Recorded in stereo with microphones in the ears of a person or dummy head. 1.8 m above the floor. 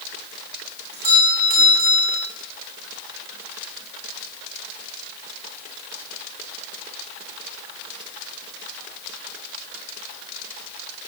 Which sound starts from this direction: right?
A doorbell, at 0.9 s.